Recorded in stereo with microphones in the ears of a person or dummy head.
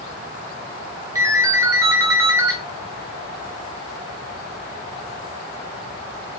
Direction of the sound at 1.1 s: 20° right (ahead or behind).